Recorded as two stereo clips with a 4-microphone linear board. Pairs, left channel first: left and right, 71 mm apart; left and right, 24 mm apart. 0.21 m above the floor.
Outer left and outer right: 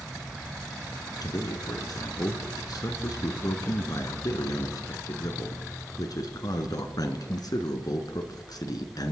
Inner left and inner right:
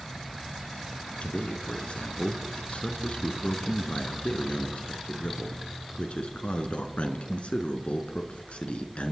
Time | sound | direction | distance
1.2 | a man speaking | 60° left (ahead or behind) | 2.5 m